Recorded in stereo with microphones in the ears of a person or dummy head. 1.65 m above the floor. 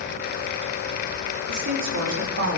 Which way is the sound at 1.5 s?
75° right (ahead or behind).